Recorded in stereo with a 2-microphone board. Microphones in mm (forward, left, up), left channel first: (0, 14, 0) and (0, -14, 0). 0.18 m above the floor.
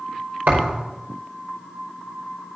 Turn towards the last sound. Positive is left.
turn(degrees=-85)